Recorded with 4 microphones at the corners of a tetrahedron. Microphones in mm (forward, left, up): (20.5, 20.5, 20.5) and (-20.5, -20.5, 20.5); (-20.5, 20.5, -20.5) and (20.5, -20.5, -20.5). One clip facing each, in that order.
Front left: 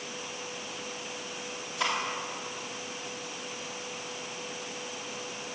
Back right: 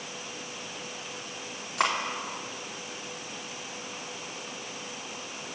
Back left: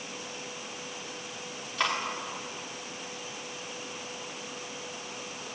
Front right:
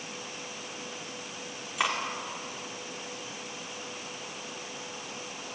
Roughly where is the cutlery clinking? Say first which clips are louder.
Back right 4 dB, even; behind right.